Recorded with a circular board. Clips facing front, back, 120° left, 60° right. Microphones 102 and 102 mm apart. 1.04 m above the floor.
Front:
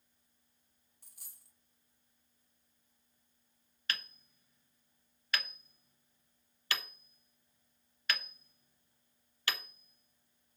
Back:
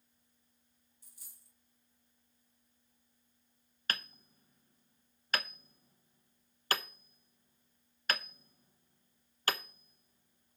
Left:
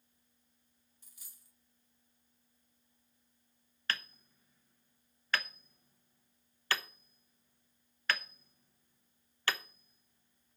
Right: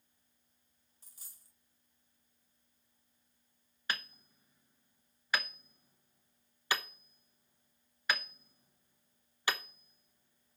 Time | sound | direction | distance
1.0 | a dropped coin | 10° right | 2.5 m
3.9 | hammering | 135° right | 0.8 m